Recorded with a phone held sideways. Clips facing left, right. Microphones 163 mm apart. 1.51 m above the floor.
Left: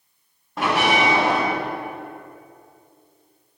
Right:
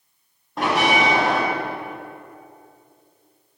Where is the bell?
Centre (ahead or behind), 2.5 m.